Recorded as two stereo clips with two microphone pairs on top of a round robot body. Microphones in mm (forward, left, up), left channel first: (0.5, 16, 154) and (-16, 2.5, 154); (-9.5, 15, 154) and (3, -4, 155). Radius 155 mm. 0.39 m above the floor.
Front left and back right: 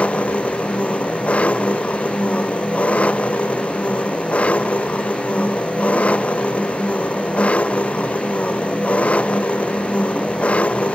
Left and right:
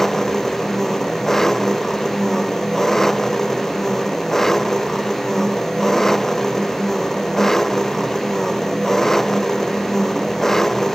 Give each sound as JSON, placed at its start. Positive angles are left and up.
{"t": 0.0, "sound": "an engine running", "azimuth_deg": 50}